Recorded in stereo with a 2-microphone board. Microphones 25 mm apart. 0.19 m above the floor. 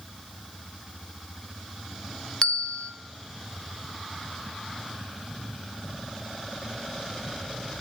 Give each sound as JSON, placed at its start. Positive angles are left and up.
{"t": 2.4, "sound": "a bell", "side_deg": 30, "distance_m": 0.7}